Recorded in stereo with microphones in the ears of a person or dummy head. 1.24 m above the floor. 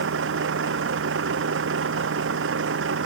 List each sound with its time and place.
0.0 s a vehicle: 80° right